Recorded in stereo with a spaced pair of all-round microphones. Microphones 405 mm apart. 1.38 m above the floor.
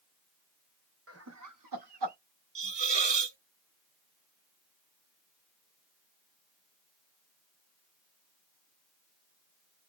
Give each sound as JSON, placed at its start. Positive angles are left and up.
{"t": 1.1, "sound": "laughter", "side_deg": -35, "distance_m": 1.0}
{"t": 2.5, "sound": "a hiss", "side_deg": -75, "distance_m": 0.6}